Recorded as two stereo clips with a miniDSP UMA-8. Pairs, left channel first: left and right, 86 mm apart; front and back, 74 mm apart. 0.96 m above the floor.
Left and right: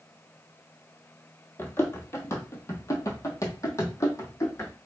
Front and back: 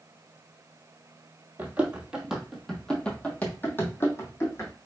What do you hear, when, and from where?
1.6 s running footsteps: 130° left, 1.1 m; by 4.7 s 40° left, 1.7 m